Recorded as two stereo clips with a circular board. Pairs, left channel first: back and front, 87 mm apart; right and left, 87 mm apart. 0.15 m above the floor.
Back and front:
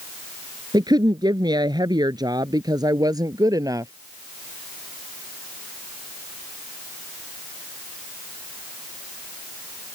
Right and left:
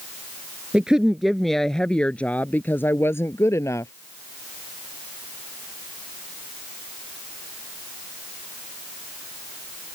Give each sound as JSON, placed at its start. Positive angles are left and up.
{"t": 0.7, "sound": "a woman speaking", "azimuth_deg": 15}